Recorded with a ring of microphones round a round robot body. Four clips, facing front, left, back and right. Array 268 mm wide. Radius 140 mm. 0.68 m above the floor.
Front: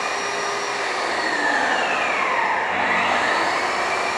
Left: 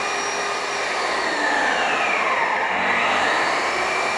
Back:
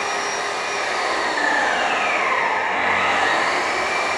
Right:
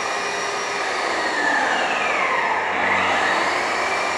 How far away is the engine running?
About 2.5 m.